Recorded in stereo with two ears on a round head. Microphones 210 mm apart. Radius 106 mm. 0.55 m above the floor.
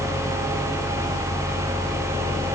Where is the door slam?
I don't hear a door slam.